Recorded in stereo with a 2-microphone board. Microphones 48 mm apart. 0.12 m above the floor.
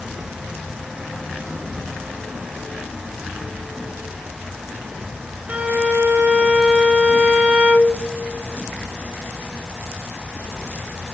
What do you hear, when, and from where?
5.5 s a violin: 30° right (ahead or behind), 1.1 m